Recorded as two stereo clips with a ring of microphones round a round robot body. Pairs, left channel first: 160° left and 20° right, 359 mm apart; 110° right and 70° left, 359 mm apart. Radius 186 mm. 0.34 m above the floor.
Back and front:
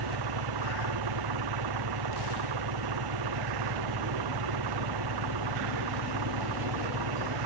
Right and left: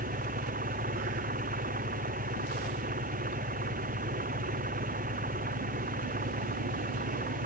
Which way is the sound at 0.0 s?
Straight ahead.